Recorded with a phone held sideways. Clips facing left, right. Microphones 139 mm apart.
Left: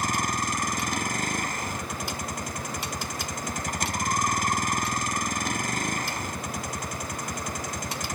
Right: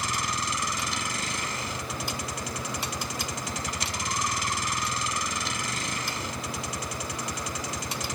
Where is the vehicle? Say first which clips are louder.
Left 4 dB; 50° left (ahead or behind).